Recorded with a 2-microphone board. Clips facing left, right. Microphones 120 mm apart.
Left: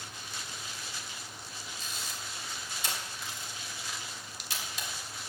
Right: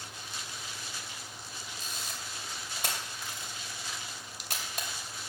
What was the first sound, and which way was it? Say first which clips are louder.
A camera shutter: even; 55° right (ahead or behind).